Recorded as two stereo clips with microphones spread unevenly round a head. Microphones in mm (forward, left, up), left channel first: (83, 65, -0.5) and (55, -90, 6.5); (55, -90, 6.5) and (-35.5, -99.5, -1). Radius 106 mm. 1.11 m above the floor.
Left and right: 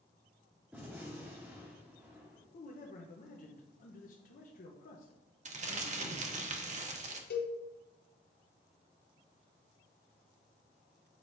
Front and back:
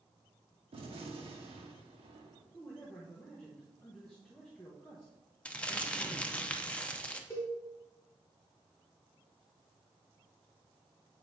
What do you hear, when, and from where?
0.7 s a gunshot: straight behind, 0.9 m
2.5 s a man speaking: 90° left, 0.7 m
5.5 s crumpling: 70° right, 0.8 m
7.3 s a cowbell: 80° left, 1.1 m